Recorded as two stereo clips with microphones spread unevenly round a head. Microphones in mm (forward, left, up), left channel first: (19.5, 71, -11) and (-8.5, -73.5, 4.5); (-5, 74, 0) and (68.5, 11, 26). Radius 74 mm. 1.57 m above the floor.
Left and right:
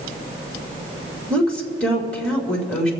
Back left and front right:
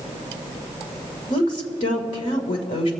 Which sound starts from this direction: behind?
A woman speaking, at 1.3 s.